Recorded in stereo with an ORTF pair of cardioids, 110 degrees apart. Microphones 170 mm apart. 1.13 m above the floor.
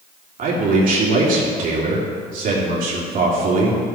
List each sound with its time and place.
0.4 s a man speaking: 55° right, 3 m